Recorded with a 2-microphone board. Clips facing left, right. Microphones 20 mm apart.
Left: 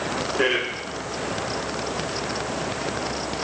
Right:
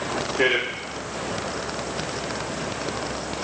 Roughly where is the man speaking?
Centre.